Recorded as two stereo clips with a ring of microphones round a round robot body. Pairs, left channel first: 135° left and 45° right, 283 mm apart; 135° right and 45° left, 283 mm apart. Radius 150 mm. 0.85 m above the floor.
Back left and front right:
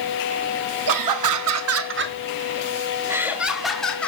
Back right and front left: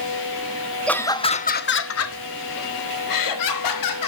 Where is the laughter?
50° right, 1.0 m; by 4.1 s 140° right, 1.9 m.